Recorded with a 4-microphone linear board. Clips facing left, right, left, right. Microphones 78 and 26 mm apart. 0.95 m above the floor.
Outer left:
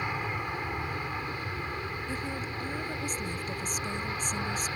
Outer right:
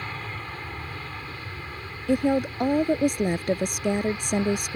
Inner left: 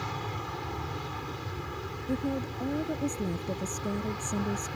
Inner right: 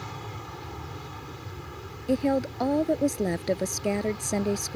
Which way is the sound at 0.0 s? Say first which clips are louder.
Outer left 3 dB, inner left 3 dB; 15° left (ahead or behind).